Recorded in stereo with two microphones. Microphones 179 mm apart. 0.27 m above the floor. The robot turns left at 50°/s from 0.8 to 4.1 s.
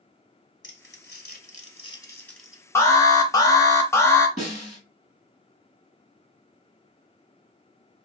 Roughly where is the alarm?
Centre.